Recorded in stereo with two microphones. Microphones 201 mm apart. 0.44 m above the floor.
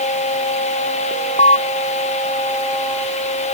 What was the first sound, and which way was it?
An alarm, 35° left (ahead or behind).